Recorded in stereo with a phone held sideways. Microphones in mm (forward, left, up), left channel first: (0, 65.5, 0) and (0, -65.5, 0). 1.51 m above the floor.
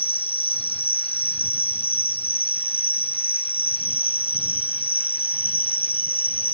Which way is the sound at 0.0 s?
45° left (ahead or behind).